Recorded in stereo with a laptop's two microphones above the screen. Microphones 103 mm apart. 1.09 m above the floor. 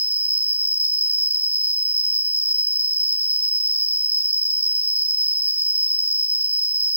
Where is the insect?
15° right (ahead or behind), 0.7 m.